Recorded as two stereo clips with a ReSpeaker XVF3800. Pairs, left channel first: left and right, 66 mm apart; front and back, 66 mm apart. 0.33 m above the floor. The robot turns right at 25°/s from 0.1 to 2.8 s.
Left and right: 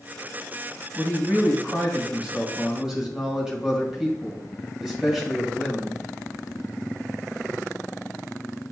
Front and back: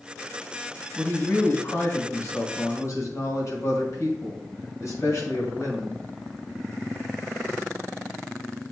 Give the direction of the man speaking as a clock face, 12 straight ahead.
2 o'clock.